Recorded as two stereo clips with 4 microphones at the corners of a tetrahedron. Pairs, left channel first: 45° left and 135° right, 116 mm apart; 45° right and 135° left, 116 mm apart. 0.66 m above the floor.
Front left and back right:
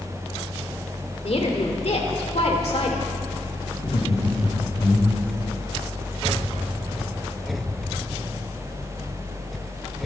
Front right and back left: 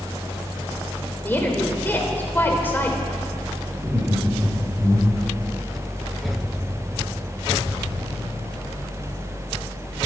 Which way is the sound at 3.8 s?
60° left.